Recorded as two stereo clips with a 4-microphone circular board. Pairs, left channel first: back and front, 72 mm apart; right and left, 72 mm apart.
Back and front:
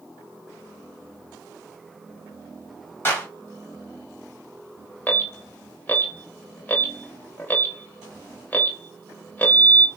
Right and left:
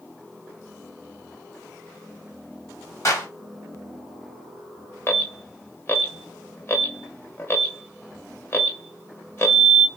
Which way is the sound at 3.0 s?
125° right.